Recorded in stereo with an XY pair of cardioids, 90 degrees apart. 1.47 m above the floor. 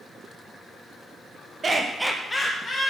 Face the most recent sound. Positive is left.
turn(degrees=50)